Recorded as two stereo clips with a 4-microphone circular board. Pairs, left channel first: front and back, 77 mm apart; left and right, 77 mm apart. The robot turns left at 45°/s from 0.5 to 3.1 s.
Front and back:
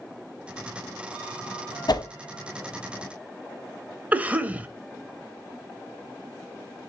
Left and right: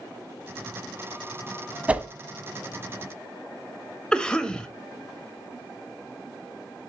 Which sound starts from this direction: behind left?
A cough, at 4.1 s.